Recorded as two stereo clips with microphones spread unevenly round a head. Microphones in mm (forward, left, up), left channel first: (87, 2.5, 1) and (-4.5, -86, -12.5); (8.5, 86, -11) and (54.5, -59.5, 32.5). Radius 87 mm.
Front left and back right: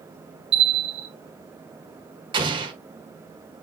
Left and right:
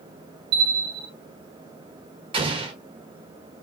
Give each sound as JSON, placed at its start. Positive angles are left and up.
{"t": 0.5, "sound": "a bell", "azimuth_deg": -95, "distance_m": 1.6}
{"t": 2.3, "sound": "an explosion", "azimuth_deg": -95, "distance_m": 1.3}